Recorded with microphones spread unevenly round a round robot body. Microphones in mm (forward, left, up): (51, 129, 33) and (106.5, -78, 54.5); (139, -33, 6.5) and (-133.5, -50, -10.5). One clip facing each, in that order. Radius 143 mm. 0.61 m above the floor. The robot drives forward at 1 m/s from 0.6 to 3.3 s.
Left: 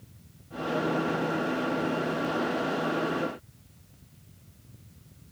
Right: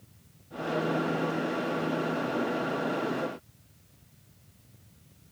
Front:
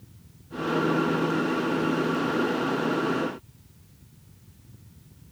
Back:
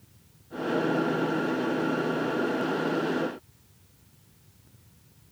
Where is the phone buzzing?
I don't hear a phone buzzing.